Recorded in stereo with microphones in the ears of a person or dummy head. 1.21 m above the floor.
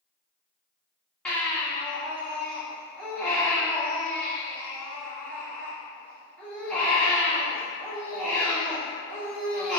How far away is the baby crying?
About 1.2 m.